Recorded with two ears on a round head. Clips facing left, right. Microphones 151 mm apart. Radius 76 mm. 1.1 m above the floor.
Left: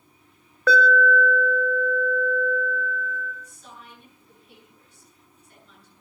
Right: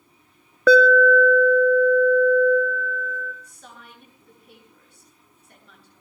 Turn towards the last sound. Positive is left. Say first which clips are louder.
# even
turn(degrees=-50)  # may be behind; listen again after turning